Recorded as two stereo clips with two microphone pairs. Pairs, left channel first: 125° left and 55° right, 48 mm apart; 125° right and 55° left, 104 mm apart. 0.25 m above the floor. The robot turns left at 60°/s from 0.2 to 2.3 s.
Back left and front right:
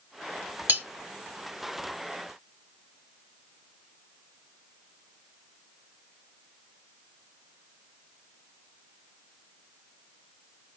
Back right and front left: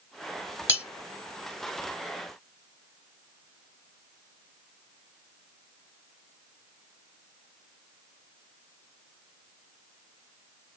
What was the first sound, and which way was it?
Cutlery clinking, 15° right.